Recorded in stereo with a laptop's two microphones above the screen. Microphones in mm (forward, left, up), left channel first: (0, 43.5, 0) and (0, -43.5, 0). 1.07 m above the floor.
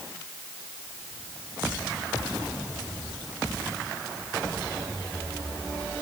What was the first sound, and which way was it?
Only background noise.